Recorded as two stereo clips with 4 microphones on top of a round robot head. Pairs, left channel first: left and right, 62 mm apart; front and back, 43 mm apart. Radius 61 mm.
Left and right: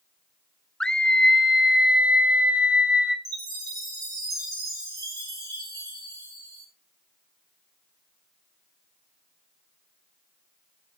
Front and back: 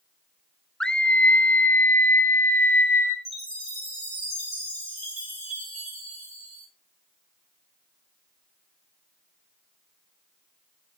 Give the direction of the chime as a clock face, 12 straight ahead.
3 o'clock.